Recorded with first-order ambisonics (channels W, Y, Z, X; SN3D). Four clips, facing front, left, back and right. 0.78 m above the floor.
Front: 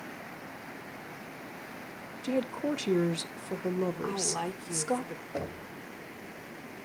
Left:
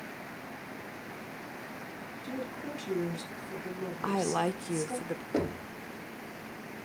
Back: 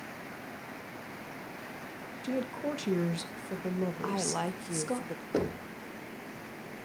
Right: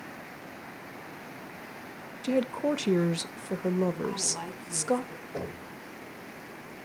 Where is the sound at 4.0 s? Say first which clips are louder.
Left 3 dB, even; 105° left, 0.7 m.